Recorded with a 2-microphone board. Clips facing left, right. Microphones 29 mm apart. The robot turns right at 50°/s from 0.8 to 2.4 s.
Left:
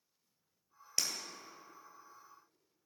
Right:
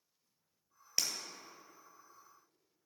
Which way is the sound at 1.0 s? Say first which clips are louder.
Even; 10° right (ahead or behind).